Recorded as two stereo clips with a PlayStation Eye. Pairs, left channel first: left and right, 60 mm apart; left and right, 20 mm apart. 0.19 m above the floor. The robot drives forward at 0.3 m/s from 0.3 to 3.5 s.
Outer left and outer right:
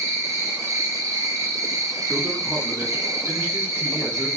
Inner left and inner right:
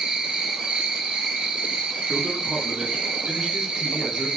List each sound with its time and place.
0.0 s an insect: 70° right (ahead or behind), 1.5 m
2.1 s a man speaking: 40° right (ahead or behind), 1.6 m; by 4.3 s 30° right (ahead or behind), 1.9 m